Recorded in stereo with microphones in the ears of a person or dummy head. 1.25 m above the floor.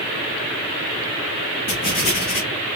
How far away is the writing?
About 2 m.